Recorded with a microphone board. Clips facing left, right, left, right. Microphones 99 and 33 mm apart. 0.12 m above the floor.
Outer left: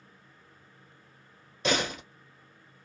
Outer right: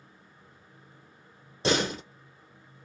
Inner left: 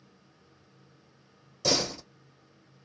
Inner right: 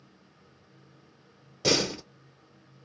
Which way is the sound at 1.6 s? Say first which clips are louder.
Outer right 2 dB, inner right 2 dB; 30° right (ahead or behind).